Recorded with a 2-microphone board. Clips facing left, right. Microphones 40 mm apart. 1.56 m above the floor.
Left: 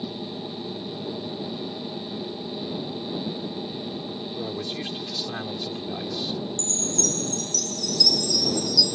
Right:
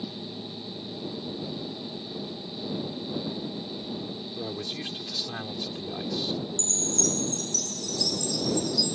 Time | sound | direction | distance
0.0 | an aircraft | 30° left (ahead or behind) | ?
4.4 | a man speaking | 10° left (ahead or behind) | ?
6.6 | a chime | 40° right (ahead or behind) | ?